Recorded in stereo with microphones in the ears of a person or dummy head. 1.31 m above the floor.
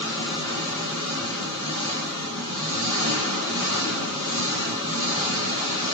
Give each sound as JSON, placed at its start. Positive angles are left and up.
{"t": 0.0, "sound": "an engine running", "side_deg": 75, "distance_m": 1.9}